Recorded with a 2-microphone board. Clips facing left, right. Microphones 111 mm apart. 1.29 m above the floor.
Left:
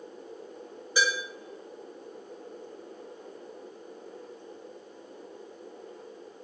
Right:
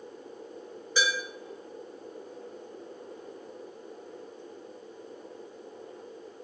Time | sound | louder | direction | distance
1.0 | dishes clattering | left 1 dB | 15° left (ahead or behind) | 2.5 m